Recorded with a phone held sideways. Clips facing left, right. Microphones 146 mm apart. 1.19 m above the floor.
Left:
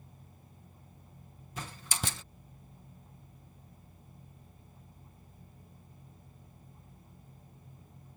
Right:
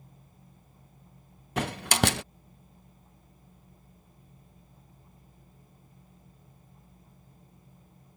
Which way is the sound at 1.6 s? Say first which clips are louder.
Right 13 dB; 75° right (ahead or behind).